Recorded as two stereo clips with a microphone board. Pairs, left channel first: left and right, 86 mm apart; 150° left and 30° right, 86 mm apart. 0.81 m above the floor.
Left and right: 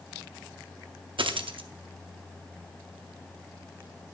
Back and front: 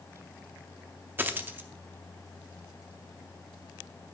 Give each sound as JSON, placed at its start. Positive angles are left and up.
{"t": 1.2, "sound": "a dropped coin", "azimuth_deg": -95, "distance_m": 0.6}